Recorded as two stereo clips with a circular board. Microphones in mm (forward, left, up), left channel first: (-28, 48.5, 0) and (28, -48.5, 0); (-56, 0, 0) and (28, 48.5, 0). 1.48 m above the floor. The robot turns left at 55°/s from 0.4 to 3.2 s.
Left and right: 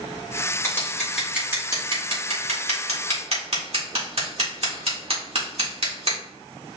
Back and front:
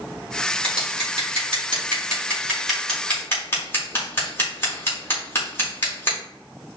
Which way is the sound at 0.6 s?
55° left.